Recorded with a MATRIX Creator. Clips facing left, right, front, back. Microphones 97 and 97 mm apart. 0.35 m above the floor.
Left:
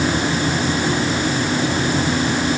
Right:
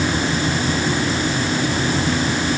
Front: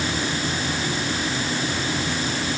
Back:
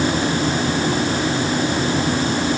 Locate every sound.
Only background noise.